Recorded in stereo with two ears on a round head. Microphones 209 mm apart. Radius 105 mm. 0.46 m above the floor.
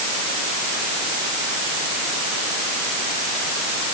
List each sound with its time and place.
Only background noise.